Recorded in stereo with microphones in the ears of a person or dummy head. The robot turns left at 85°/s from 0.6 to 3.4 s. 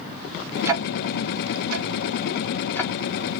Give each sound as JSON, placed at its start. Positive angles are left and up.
{"t": 0.7, "sound": "ticking", "side_deg": -15, "distance_m": 0.5}